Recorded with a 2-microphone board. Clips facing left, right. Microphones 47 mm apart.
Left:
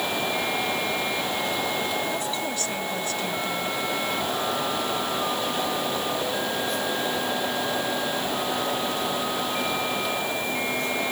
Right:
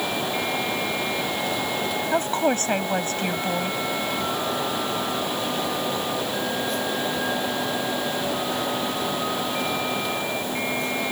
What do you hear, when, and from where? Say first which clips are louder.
2.1 s a woman speaking: right 6 dB; 45° right (ahead or behind)